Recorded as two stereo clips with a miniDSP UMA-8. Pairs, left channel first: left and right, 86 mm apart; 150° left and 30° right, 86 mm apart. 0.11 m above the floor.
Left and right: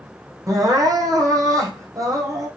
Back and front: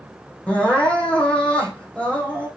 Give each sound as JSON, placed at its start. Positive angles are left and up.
{"t": 0.5, "sound": "crying", "azimuth_deg": -135, "distance_m": 3.0}